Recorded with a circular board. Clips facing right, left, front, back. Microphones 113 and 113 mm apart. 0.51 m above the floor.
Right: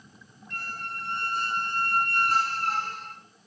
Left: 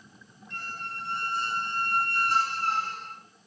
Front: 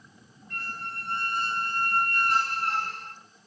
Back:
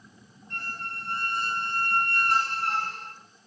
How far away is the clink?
No clink in this recording.